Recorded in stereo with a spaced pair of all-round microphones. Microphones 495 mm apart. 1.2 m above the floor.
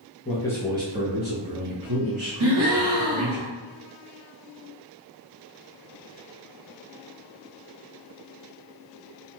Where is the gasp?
55° right (ahead or behind), 1.0 m.